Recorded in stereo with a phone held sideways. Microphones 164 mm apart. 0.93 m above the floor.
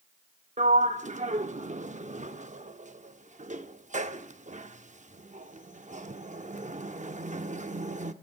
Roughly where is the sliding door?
Right.